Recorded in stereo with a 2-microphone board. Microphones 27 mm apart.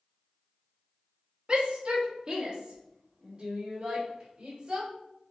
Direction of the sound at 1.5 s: 35° right (ahead or behind).